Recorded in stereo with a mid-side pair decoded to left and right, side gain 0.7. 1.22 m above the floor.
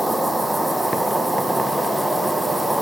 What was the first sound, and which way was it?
An insect, straight ahead.